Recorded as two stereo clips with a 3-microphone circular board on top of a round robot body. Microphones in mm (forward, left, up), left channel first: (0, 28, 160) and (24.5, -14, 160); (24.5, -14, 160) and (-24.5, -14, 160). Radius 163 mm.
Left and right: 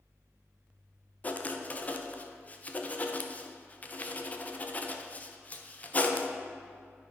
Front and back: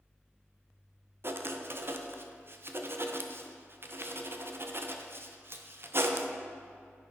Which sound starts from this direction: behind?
Writing, at 1.2 s.